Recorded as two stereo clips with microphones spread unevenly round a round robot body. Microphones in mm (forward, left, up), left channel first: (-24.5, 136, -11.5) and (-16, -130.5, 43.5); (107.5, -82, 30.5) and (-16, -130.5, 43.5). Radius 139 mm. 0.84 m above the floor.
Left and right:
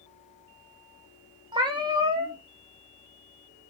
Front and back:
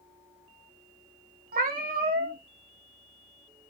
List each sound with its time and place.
1.5 s a cat meowing: 160° right, 0.5 m